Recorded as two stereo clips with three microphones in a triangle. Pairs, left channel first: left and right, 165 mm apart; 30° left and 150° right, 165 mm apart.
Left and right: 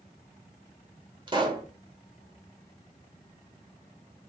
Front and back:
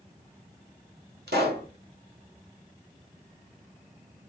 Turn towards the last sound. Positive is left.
turn(degrees=-155)